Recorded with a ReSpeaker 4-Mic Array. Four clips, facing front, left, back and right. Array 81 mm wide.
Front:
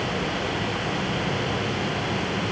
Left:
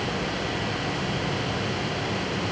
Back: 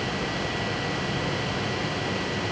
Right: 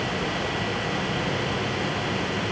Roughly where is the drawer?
No drawer in this recording.